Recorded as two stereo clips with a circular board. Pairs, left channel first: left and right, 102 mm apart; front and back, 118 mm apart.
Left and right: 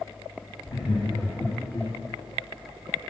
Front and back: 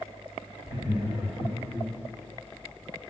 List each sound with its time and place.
0.7 s laughter: 120° left, 2.5 m; by 1.9 s 130° left, 2 m